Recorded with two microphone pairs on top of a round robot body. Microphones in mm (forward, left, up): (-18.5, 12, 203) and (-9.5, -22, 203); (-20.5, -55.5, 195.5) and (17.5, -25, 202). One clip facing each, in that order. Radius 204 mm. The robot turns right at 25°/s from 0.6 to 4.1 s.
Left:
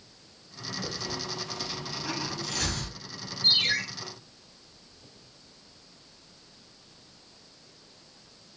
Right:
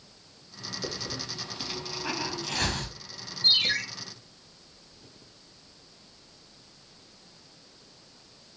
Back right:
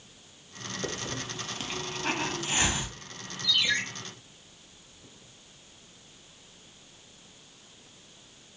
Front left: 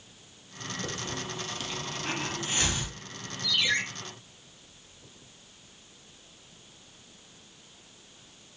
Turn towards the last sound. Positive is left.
turn(degrees=25)